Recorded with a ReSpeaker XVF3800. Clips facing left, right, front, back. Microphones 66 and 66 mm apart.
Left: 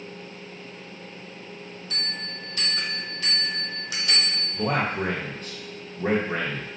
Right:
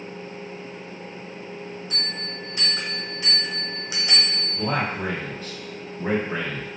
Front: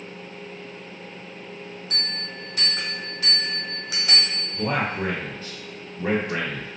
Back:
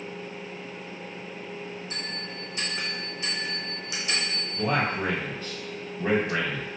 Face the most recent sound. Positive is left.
turn(degrees=65)